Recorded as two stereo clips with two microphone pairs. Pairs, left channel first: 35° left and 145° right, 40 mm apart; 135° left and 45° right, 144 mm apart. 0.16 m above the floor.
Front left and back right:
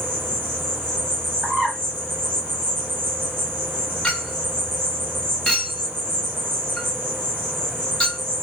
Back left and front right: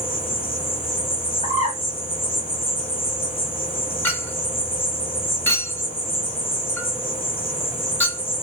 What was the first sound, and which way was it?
An insect, 175° right.